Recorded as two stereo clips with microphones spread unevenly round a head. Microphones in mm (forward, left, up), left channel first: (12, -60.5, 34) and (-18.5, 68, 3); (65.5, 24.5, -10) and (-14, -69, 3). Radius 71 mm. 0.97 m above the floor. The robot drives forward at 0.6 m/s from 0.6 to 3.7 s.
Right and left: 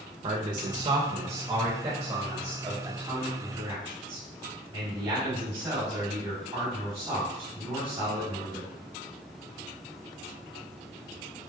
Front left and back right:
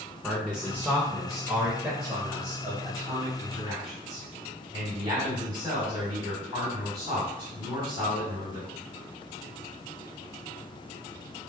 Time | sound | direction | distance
0.2 | a man speaking | 140° left | 0.6 m